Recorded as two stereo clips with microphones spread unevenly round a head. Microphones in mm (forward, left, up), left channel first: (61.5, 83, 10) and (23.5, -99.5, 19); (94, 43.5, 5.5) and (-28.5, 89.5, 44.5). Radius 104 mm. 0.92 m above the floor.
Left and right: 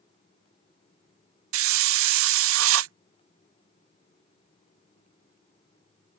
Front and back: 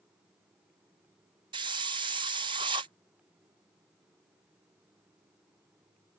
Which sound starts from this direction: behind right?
A hiss, at 1.5 s.